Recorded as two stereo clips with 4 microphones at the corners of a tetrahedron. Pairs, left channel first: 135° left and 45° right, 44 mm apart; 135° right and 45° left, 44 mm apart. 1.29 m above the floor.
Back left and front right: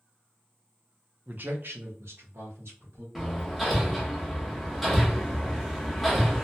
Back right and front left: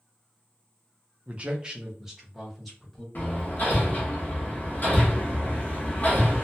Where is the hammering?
135° right, 0.8 m.